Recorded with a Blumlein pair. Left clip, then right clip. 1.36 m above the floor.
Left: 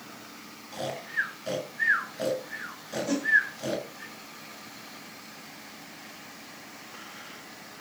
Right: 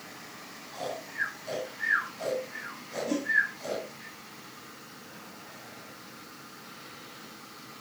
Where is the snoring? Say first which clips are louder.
Left 4 dB; 35° left, 8 m.